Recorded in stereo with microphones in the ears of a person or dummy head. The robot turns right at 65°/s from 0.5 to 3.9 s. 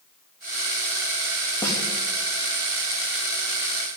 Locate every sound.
1.6 s a snare drum: 20° left (ahead or behind), 3 m; by 1.8 s 5° left (ahead or behind), 3 m